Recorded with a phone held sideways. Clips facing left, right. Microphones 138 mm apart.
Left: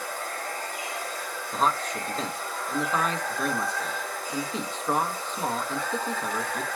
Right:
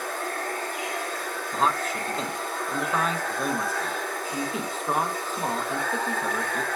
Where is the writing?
I don't hear writing.